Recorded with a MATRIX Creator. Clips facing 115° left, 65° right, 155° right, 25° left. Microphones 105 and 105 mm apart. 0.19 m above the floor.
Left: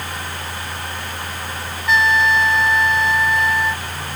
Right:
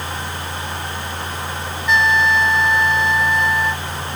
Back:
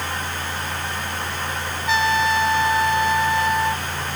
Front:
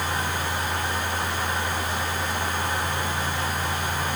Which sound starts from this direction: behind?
A trumpet, at 1.9 s.